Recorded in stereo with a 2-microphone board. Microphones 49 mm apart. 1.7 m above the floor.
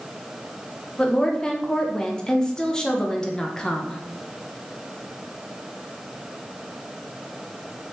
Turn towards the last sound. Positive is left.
turn(degrees=15)  # may be behind; listen again after turning